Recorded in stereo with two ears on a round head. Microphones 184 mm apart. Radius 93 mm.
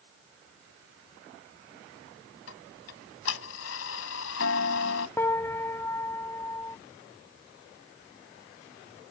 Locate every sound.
2.5 s ticking: 70° left (ahead or behind)
5.2 s a piano: 10° left (ahead or behind)